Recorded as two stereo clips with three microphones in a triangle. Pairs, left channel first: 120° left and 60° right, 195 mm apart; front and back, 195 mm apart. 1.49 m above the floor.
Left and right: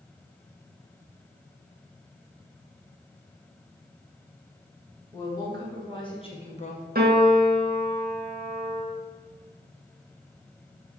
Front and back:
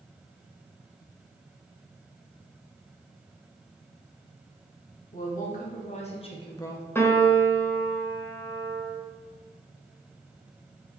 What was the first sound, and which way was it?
A woman speaking, 50° left.